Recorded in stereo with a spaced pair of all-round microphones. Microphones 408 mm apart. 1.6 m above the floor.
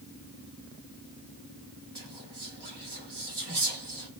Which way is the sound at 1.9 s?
75° right (ahead or behind).